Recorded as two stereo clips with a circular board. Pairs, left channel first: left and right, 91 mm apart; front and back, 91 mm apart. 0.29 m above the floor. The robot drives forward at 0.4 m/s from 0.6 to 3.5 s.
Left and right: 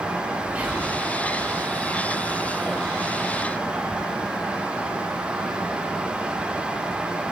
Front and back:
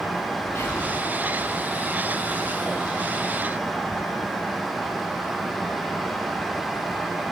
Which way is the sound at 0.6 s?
30° right.